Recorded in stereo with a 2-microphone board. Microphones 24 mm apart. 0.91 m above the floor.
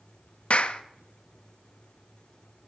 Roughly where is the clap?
Left.